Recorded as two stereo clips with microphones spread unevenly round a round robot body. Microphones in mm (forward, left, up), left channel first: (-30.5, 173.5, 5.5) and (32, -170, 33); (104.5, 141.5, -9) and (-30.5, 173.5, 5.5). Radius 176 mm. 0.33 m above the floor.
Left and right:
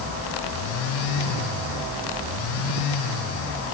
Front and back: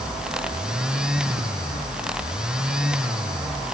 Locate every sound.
Only background noise.